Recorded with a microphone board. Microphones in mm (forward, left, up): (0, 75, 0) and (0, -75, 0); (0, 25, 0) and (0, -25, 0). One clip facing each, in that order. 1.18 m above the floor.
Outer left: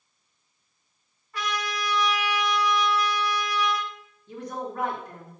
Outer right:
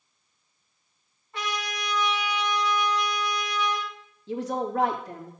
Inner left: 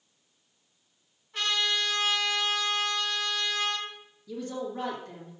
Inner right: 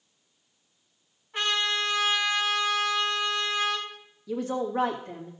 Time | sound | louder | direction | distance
1.3 | a trumpet | outer left 2 dB, inner right 2 dB | 25° right (ahead or behind) | 4 m
4.3 | a woman speaking | outer right 6 dB, inner right 6 dB | 85° right | 2 m